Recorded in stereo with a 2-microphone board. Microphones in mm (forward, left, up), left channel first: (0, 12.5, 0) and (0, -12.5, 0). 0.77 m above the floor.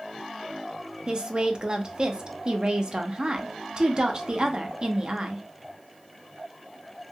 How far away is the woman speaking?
About 0.5 m.